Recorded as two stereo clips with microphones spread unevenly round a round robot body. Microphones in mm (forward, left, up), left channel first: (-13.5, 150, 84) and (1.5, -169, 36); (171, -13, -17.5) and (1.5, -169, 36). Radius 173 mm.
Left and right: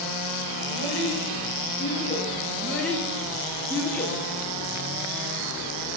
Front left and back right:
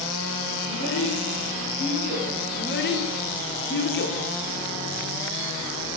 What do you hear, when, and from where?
0.6 s a child speaking: 5° left, 4 m; by 2.3 s 30° left, 5 m
2.5 s a child speaking: 5° left, 1.6 m